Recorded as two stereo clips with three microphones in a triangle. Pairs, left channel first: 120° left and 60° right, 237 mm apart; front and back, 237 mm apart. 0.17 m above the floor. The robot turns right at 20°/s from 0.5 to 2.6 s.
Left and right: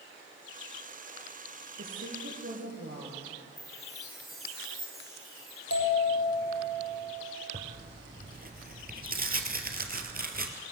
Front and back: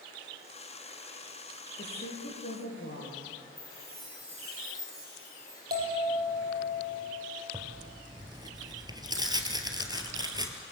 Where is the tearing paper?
110° right, 1.9 m.